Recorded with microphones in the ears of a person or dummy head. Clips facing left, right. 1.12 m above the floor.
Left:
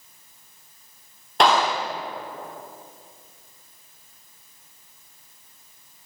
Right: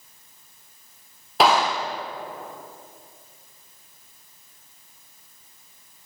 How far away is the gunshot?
About 0.9 m.